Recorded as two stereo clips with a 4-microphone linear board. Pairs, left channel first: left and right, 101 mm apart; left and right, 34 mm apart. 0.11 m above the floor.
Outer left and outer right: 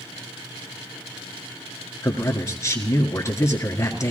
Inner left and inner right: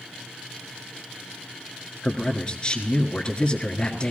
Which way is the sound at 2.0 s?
30° left (ahead or behind).